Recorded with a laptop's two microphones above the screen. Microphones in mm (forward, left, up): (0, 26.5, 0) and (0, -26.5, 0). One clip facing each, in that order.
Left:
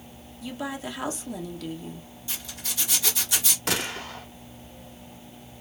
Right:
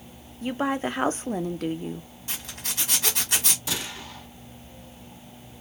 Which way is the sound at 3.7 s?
65° left (ahead or behind).